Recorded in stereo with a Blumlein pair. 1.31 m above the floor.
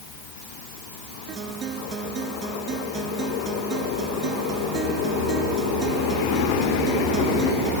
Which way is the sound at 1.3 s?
25° right.